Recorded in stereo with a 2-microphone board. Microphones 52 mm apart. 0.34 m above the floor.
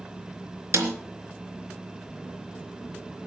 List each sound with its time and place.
0.7 s a snare drum: 65° right (ahead or behind), 3.5 m